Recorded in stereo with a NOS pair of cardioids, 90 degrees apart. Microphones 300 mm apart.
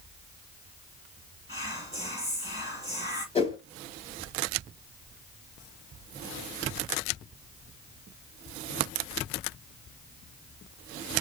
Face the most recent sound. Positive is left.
turn(degrees=20)